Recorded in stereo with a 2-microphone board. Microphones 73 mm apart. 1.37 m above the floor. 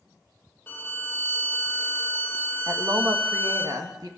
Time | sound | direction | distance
0.7 | a violin | 30° left (ahead or behind) | 1.8 m
2.7 | a woman speaking | 60° right (ahead or behind) | 1.9 m